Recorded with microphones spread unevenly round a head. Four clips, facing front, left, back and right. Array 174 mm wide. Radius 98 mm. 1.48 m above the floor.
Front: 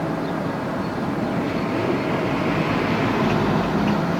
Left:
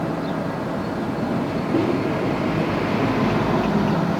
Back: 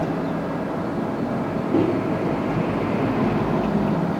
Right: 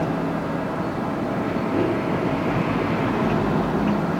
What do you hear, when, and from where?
1.7 s a microwave: 160° left, 3 m